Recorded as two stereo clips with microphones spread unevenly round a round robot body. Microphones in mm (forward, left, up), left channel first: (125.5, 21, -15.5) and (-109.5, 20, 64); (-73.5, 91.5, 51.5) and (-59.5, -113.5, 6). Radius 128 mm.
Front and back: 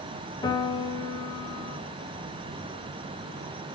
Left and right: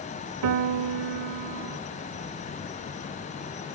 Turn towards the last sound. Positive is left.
turn(degrees=-80)